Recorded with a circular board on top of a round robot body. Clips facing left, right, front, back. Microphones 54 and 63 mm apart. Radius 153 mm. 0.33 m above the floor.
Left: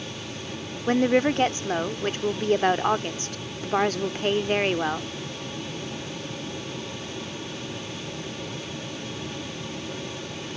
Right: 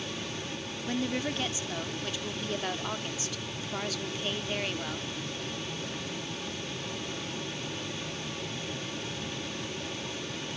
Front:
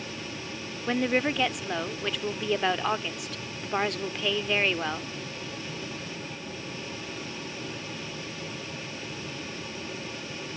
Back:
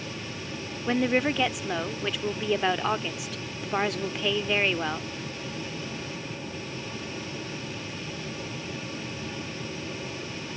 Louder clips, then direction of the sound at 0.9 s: Left 12 dB, back 1 dB; 95° left.